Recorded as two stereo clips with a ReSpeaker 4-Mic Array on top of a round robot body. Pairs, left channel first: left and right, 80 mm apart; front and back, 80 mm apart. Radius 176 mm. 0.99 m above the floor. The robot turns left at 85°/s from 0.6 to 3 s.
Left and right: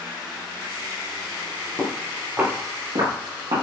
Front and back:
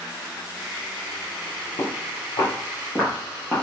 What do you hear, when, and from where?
1.8 s footsteps: 40° left, 4 m; by 3.6 s 90° right, 3 m